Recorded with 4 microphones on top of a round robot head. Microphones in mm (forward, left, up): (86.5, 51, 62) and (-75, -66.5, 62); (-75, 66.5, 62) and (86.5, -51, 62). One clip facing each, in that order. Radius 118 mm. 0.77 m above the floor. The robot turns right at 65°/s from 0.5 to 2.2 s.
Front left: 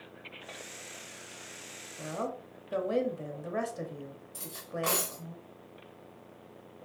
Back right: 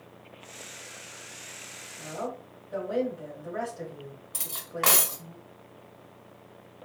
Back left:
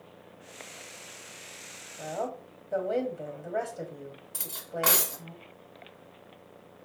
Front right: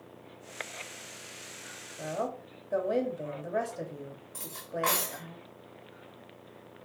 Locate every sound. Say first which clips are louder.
2.0 s a woman speaking: back right 1 dB, even; 35° left, 1.2 m; by 5.3 s 50° left, 1.2 m
4.3 s cutlery clinking: even, even; 165° right, 0.8 m